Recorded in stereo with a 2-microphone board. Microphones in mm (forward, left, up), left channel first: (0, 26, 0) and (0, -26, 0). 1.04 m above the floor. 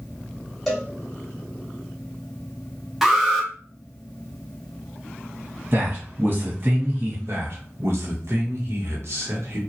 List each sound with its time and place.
0.7 s a cowbell: 5° left (ahead or behind), 1.6 m
3.0 s an alarm: 5° right (ahead or behind), 0.8 m
5.7 s a man speaking: 45° right (ahead or behind), 1.4 m
7.3 s a man speaking: 60° right (ahead or behind), 1.0 m